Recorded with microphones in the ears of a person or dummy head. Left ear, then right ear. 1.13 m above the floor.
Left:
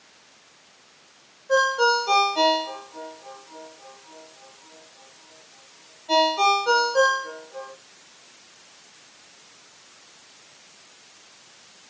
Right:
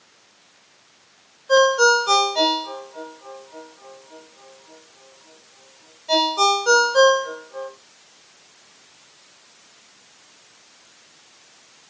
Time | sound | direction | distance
1.5 | a ringtone | 75° right (ahead or behind) | 6.5 m